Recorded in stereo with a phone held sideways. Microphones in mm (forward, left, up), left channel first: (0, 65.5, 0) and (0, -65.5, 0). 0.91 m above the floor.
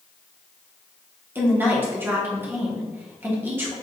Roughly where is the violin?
I don't hear a violin.